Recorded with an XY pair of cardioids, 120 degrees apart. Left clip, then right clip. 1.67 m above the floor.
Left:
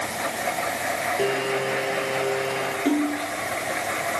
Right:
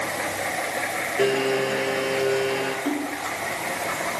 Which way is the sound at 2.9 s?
25° left.